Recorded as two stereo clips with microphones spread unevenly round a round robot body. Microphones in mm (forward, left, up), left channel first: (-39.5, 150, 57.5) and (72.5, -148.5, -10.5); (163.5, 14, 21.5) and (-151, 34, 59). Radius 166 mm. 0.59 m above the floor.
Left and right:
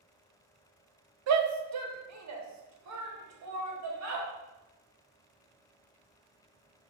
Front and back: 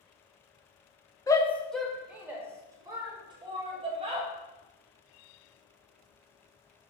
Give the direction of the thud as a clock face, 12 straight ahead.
I don't hear a thud.